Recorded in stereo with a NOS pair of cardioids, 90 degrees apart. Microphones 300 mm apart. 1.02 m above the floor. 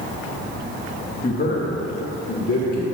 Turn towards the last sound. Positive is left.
turn(degrees=55)